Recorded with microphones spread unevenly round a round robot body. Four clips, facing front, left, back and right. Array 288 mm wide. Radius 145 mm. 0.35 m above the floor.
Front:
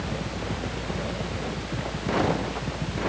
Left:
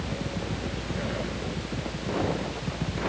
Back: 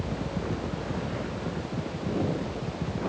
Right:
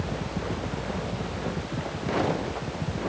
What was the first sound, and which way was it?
Only background noise.